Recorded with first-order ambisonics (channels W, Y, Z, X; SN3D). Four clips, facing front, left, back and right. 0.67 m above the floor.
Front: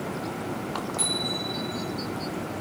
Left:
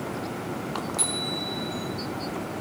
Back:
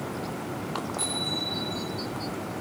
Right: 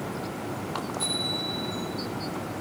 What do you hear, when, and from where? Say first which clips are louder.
1.0 s a bicycle bell: right 2 dB, front 2 dB; 75° left, 8 m